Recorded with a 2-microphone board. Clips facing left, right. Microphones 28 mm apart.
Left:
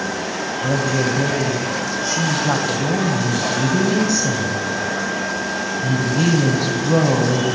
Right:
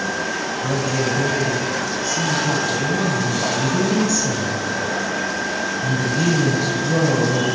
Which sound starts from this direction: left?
A woman speaking, at 0.6 s.